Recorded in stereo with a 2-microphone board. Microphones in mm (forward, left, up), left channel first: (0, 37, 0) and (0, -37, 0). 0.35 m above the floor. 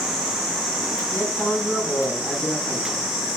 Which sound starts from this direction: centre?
A man speaking, at 1.1 s.